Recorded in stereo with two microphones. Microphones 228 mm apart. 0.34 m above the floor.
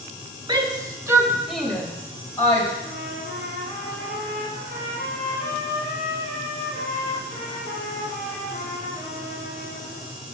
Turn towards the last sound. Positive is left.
turn(degrees=-50)  # may be behind; listen again after turning